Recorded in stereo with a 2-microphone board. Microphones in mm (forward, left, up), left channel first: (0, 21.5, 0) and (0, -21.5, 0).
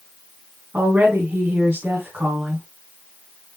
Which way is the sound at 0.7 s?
50° right (ahead or behind).